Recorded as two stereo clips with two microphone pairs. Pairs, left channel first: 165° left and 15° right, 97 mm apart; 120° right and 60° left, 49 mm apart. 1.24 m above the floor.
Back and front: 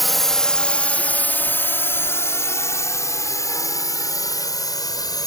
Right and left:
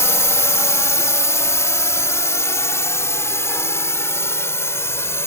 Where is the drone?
105° right; by 5.3 s 150° right.